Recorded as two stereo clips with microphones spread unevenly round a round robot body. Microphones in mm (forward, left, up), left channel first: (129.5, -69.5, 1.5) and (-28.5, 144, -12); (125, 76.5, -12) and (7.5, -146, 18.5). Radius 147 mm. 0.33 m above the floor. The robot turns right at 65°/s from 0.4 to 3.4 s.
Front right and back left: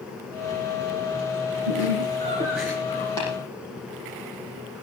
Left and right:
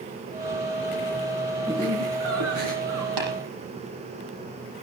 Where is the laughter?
150° left, 4.5 m; by 3.1 s 115° right, 4.5 m.